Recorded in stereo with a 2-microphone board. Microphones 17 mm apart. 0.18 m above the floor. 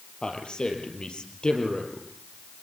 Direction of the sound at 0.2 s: 55° left (ahead or behind).